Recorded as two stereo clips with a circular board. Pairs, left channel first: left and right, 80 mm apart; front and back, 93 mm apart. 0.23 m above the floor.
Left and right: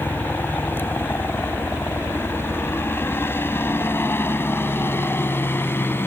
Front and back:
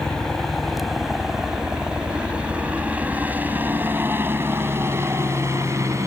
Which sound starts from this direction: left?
A helicopter, at 0.0 s.